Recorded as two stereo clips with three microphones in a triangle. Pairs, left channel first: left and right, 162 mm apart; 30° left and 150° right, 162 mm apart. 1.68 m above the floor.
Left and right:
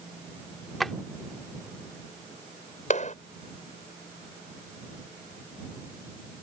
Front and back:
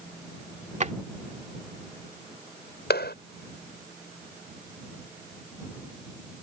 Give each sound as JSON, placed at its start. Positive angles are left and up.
{"t": 0.8, "sound": "a drawer", "azimuth_deg": 180}
{"t": 2.9, "sound": "a clap", "azimuth_deg": 45}